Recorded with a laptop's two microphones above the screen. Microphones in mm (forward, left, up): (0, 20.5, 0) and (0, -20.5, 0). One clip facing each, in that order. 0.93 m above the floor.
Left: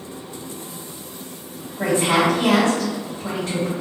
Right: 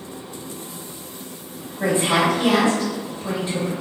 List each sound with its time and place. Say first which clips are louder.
1.8 s a woman speaking: left 1 dB; 65° left (ahead or behind), 1.3 m